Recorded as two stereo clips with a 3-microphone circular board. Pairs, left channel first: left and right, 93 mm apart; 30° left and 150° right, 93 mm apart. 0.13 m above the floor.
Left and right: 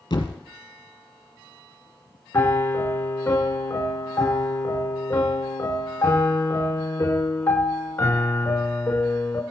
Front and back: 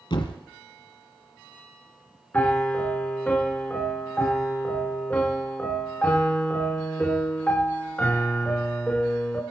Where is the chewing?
I don't hear chewing.